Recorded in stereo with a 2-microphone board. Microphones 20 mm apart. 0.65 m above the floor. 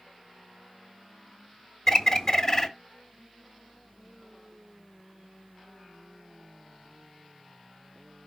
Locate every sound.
1.9 s a bird: 15° left (ahead or behind), 1.2 m